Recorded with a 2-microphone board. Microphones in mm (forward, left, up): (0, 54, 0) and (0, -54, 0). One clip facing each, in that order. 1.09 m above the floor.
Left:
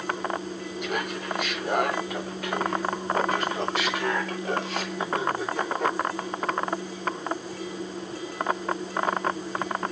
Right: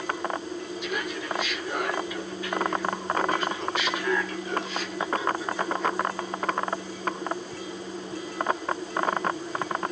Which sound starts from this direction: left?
Laughter, at 0.8 s.